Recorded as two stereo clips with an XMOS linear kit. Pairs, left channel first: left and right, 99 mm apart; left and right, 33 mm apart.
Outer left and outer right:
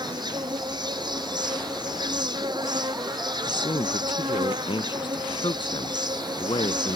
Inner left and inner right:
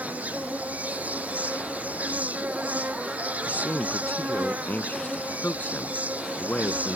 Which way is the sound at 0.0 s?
50° right (ahead or behind).